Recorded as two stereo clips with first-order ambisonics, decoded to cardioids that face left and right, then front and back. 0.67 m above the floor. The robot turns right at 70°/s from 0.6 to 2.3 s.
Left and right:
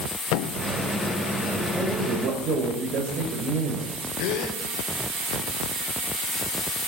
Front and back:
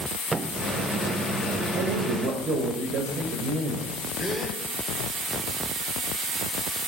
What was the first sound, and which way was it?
A thud, 105° left.